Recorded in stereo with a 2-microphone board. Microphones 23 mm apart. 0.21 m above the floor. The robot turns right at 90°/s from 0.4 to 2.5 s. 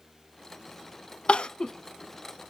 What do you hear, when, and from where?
1.3 s crying: 55° left (ahead or behind), 0.6 m; by 1.7 s 30° left (ahead or behind), 0.6 m